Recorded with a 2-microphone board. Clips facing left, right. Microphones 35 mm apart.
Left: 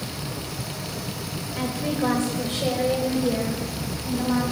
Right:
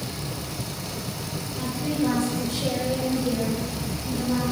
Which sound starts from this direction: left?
A woman speaking, at 1.6 s.